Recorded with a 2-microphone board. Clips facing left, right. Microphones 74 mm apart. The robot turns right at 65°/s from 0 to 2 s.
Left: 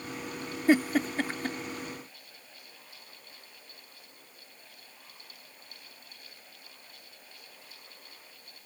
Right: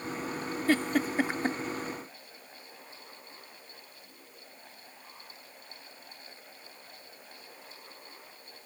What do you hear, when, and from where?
0.7 s a giggle: 20° left (ahead or behind); by 1.6 s 40° right (ahead or behind)